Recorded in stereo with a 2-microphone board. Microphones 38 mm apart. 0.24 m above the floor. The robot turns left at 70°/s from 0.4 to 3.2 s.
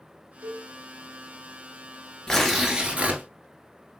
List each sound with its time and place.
0.4 s a cowbell: 45° right (ahead or behind), 0.6 m; by 0.7 s 35° right (ahead or behind), 0.6 m
2.3 s tearing paper: 15° left, 0.8 m; by 3.2 s 50° right, 0.8 m